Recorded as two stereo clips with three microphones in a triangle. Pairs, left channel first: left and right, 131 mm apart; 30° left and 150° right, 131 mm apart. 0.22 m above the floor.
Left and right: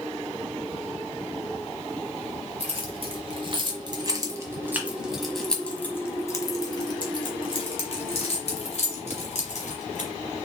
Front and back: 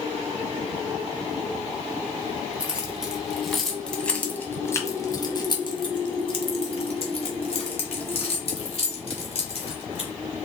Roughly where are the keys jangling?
Right.